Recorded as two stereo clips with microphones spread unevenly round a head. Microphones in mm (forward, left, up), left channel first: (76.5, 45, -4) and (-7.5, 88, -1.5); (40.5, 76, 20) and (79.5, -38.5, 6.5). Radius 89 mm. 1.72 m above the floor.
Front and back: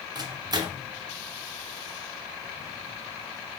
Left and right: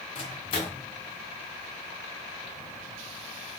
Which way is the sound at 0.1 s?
135° left.